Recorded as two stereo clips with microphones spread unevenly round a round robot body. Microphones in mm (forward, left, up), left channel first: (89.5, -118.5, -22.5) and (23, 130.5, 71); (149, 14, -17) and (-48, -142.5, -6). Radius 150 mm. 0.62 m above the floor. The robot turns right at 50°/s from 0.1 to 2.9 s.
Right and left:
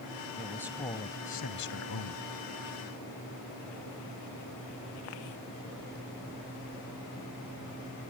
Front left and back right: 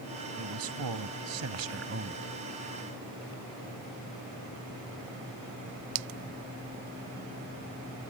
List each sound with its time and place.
0.4 s a man speaking: straight behind; by 2.2 s 85° right